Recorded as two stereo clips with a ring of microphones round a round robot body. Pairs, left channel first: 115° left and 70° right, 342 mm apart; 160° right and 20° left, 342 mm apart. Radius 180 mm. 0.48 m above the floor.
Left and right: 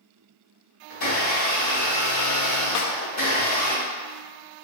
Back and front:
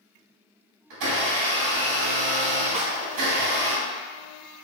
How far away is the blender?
About 2.0 m.